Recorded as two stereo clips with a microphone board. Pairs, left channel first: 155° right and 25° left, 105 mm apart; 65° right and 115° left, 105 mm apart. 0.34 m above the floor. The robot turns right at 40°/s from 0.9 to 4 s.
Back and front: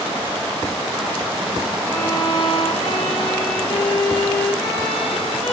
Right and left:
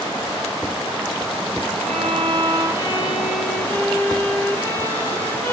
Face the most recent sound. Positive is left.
turn(degrees=-130)